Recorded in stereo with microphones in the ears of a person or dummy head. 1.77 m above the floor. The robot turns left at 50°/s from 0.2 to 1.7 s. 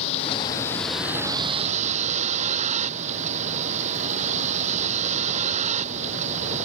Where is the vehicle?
35° left; by 6.7 s 40° right.